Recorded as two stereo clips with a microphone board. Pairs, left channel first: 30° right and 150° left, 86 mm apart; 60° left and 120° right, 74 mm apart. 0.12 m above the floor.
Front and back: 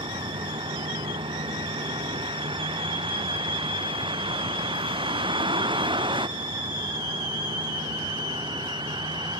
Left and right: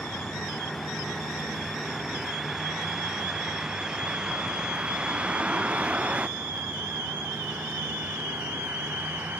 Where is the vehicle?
145° left; by 9.4 s 175° left.